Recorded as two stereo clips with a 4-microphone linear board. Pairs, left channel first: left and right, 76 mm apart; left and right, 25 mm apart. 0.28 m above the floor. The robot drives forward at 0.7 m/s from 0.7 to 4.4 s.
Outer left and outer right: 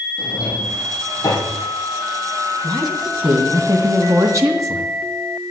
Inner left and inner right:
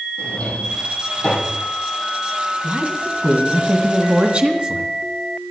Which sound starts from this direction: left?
A drawer, at 0.2 s.